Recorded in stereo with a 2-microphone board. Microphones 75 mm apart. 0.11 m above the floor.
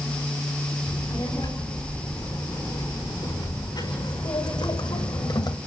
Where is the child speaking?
65° left (ahead or behind), 8 m; by 5.6 s 75° left (ahead or behind), 2.5 m.